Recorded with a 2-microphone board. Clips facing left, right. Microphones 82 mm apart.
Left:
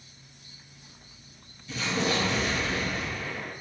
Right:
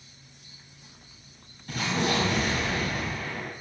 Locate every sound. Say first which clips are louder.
1.7 s an explosion: right 1 dB; 65° right (ahead or behind), 2 m